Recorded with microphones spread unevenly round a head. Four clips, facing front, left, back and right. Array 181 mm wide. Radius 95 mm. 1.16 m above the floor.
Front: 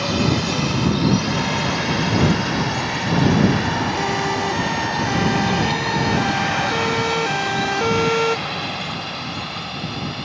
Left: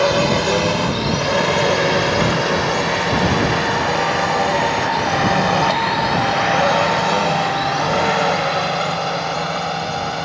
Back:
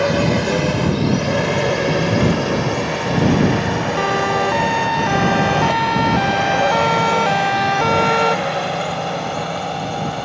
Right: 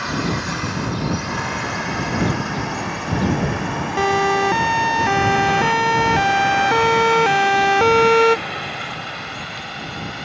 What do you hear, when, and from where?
0.0 s a drone: 125° left; by 10.3 s 140° left
4.0 s a siren: 110° right; by 8.4 s 100° right